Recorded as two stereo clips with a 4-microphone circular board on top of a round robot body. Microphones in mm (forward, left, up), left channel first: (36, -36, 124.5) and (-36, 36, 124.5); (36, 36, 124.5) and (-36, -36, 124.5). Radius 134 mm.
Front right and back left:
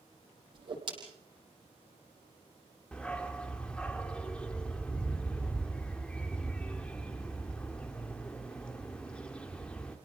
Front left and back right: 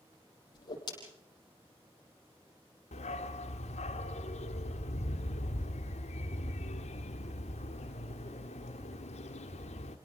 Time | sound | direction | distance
0.5 | a whoosh | 95° left | 7 m
2.9 | a dog barking | 35° left | 1.5 m